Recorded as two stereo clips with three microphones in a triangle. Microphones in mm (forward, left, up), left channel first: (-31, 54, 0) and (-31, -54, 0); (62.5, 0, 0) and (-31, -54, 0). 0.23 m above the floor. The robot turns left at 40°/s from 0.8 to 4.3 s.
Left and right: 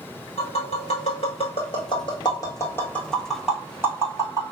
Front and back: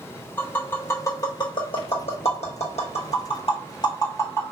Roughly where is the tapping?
Left.